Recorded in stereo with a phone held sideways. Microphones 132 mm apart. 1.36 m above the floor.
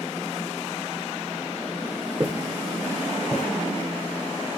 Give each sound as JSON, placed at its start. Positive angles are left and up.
{"t": 2.2, "sound": "footsteps", "side_deg": -30, "distance_m": 1.9}